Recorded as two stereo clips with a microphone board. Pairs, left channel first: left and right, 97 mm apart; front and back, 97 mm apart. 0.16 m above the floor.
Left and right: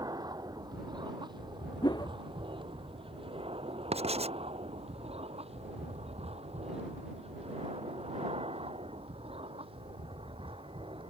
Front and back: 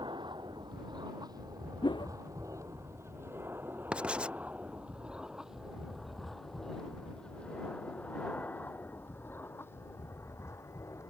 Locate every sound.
0.0 s an aircraft: 140° right; by 11.1 s 60° right
1.8 s a whoosh: 45° left
3.9 s writing: 100° right